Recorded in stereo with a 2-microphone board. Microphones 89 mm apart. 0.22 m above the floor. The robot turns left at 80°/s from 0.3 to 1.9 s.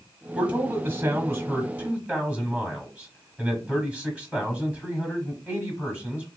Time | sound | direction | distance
0.3 | a man speaking | 10° right (ahead or behind) | 1.3 m